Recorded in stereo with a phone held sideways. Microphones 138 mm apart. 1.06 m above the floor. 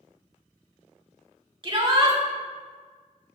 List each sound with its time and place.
1.6 s a shout: 35° right (ahead or behind), 1.7 m